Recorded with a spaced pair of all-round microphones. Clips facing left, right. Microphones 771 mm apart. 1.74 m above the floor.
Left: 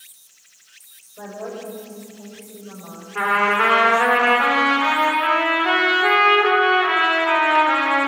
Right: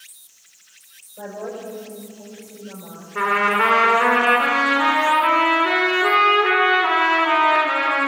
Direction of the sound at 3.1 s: 25° left (ahead or behind).